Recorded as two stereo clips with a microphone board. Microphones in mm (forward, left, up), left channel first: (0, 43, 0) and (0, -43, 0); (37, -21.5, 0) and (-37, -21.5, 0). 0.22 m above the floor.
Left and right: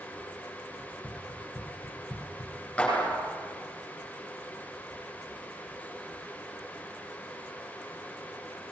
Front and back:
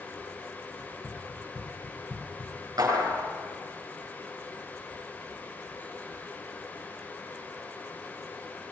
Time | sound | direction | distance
0.8 | running footsteps | 50° left | 3 m
2.8 | a clap | 160° left | 8 m